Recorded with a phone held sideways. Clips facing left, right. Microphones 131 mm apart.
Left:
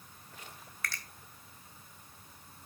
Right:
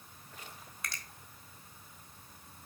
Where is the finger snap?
20° right (ahead or behind), 1.5 m.